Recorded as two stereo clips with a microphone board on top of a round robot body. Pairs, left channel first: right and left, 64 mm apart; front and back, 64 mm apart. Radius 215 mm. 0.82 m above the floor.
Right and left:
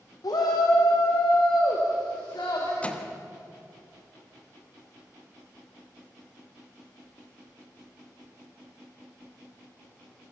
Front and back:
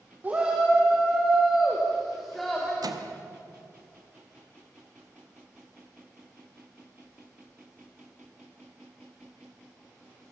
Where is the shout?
115° right, 2.5 m; by 2.7 s 85° right, 4 m.